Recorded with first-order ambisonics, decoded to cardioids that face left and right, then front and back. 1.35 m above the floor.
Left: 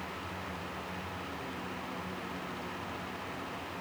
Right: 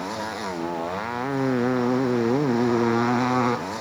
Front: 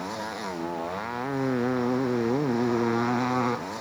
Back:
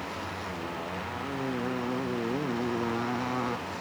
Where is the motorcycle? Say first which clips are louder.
Right 11 dB, front 3 dB; 65° right; by 3.8 s 70° right.